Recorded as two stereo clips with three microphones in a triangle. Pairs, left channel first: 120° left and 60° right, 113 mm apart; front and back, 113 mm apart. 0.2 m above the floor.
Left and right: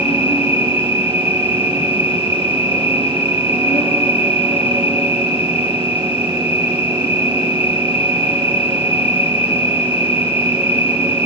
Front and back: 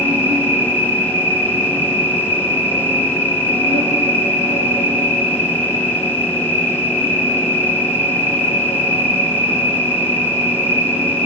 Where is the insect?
145° left, 4 m.